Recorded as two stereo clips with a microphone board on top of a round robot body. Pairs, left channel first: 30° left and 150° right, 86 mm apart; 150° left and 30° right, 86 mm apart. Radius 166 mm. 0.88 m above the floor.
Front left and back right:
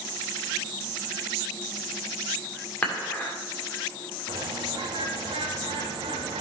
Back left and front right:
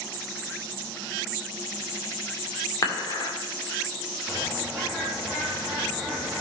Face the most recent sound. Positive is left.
turn(degrees=-120)